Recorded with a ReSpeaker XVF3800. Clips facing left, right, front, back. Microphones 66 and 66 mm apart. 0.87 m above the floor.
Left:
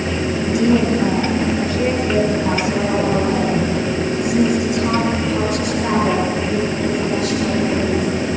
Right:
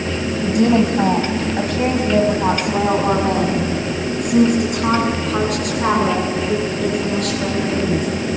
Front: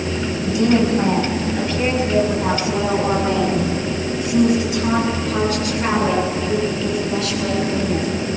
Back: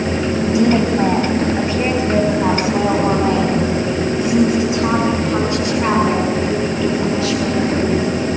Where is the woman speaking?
115° right, 5 m.